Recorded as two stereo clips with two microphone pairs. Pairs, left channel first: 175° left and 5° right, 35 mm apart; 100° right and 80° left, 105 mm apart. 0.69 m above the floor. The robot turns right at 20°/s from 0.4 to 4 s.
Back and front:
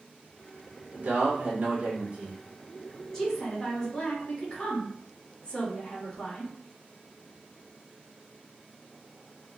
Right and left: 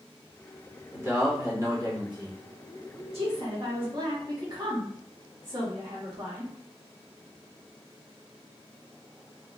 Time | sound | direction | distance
0.9 | a man speaking | 20° left | 1.5 m
3.1 | a woman speaking | 100° left | 1.9 m